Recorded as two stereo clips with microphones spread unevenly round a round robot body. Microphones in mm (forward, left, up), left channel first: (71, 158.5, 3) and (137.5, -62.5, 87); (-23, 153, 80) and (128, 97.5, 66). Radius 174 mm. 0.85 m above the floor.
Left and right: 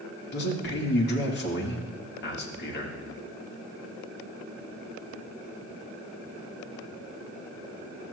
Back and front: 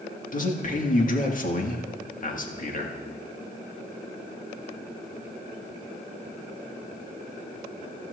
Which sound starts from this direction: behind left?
A man speaking, at 0.3 s.